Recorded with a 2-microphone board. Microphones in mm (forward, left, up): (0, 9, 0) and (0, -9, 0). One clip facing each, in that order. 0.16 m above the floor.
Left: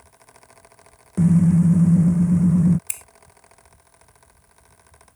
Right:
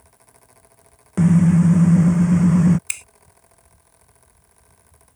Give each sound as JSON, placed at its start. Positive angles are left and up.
{"t": 1.2, "sound": "a car horn", "side_deg": -40}
{"t": 2.9, "sound": "a finger snap", "side_deg": -35}